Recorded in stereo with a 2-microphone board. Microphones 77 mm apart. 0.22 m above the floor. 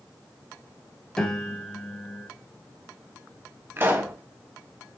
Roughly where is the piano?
Centre.